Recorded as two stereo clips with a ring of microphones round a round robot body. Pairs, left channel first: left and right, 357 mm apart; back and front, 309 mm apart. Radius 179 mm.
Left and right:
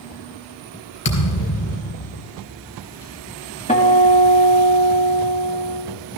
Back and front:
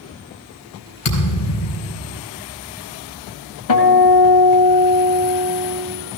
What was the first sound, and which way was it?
A thud, 145° left.